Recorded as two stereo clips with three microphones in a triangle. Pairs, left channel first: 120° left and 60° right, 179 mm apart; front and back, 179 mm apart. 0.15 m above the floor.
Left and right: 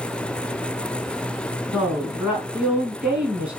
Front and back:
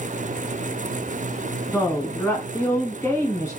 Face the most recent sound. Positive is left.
turn(degrees=5)